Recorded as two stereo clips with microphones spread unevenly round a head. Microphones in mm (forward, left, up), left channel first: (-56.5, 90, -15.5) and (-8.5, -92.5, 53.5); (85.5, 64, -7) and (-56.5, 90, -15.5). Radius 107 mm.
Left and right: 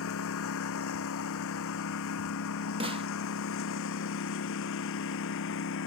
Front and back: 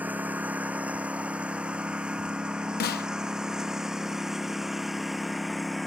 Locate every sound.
0.0 s a lawn mower: 90° left; by 5.9 s 80° left
2.8 s a snare drum: 15° right